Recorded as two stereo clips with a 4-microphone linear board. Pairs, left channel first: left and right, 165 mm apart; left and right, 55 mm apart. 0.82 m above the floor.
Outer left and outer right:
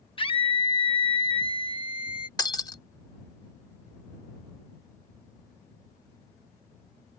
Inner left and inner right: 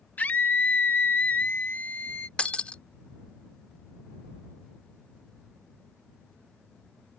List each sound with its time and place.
0.2 s a scream: 30° left (ahead or behind)
2.4 s breaking glass: 25° left (ahead or behind)